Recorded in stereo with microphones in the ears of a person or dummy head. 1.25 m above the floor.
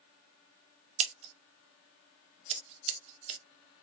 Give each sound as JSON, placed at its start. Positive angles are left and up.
{"t": 1.0, "sound": "scissors", "side_deg": -35, "distance_m": 0.7}